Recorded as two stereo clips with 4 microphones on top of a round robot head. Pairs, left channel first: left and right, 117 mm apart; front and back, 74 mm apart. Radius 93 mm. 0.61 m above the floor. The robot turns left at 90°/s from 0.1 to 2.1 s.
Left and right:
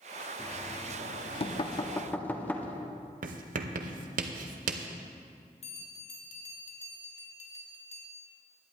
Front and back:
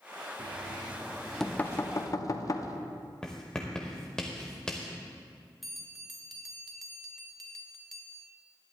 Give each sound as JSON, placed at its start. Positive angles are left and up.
{"t": 0.4, "sound": "knocking", "azimuth_deg": 170, "distance_m": 0.9}
{"t": 3.2, "sound": "writing", "azimuth_deg": -85, "distance_m": 0.6}
{"t": 5.6, "sound": "a bell", "azimuth_deg": 90, "distance_m": 1.7}